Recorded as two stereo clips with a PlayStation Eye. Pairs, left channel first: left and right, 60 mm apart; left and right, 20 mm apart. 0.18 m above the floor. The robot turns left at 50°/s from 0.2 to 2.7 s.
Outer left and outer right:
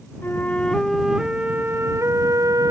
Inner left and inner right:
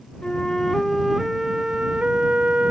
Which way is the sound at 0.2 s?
35° left.